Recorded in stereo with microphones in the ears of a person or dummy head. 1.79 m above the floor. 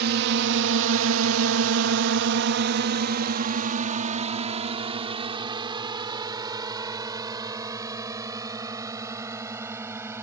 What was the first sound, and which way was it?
A drone, 60° right (ahead or behind).